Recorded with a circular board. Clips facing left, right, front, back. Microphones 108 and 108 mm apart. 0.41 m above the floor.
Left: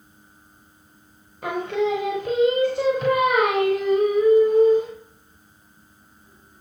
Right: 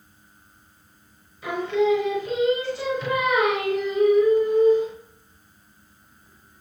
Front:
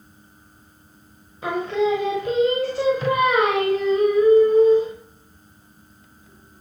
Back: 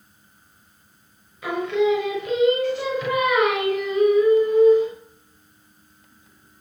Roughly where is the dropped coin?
I don't hear a dropped coin.